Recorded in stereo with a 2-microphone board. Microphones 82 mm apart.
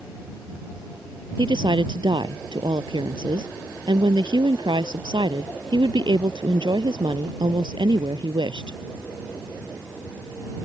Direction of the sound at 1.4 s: 80° right.